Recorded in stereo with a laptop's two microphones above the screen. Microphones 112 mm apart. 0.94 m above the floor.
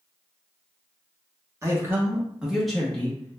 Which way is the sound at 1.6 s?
25° right (ahead or behind).